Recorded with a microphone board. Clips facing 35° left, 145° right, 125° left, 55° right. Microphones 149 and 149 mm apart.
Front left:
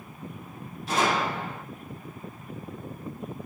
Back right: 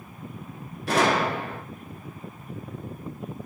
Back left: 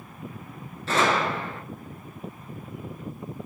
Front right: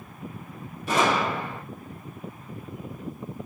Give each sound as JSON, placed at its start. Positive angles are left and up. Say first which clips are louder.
{"t": 0.9, "sound": "a gunshot", "louder": "back right 3 dB, even", "azimuth_deg": -130, "distance_m": 0.8}